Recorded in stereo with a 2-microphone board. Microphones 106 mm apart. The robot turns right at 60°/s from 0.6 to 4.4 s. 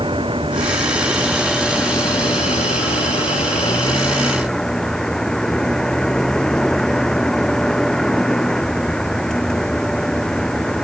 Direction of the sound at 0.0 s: 55° right.